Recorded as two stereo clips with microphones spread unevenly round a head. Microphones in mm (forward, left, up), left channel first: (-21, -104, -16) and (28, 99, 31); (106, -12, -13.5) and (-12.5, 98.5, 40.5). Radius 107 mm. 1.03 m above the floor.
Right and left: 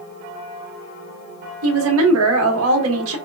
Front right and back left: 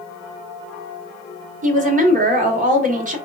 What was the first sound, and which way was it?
A woman speaking, 95° left.